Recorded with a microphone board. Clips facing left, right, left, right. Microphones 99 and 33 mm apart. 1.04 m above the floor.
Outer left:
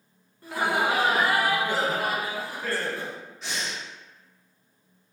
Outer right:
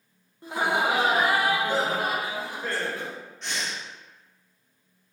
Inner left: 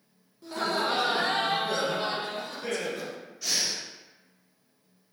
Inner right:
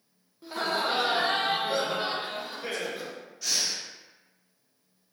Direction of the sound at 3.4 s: 5° left (ahead or behind).